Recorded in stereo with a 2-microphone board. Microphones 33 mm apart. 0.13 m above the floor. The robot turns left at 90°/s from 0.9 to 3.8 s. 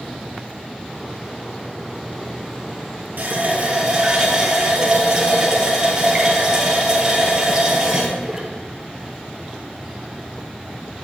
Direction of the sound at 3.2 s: 95° right.